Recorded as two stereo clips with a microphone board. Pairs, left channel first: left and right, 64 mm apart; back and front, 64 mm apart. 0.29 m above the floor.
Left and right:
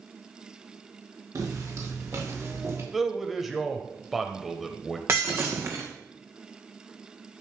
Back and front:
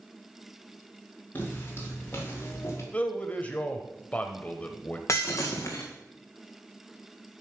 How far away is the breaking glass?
About 2 m.